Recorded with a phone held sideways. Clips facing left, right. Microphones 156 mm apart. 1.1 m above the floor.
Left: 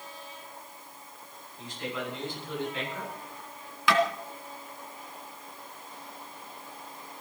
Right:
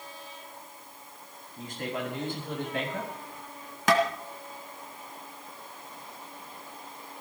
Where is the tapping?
45° right (ahead or behind), 3 m.